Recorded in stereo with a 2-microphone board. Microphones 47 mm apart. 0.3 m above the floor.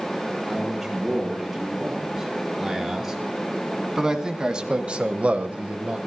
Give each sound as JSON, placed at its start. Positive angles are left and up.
{"t": 0.5, "sound": "a man speaking", "side_deg": -5, "distance_m": 7.5}